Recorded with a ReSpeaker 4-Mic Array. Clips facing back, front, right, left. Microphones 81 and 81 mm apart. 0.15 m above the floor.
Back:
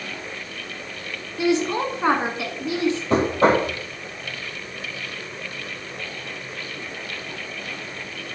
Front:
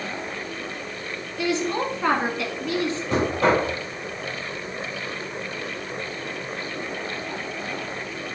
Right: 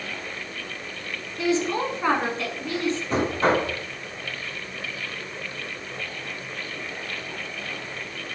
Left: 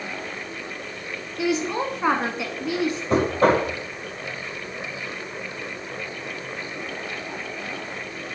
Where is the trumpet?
I don't hear a trumpet.